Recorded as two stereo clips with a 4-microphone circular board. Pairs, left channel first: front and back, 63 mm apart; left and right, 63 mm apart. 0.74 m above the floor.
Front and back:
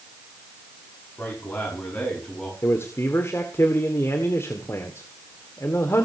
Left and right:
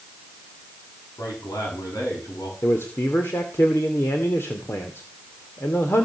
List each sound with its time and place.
1.2 s a man speaking: 65° left, 7.5 m; by 2.5 s 75° left, 6.5 m
2.6 s a man speaking: 45° left, 2 m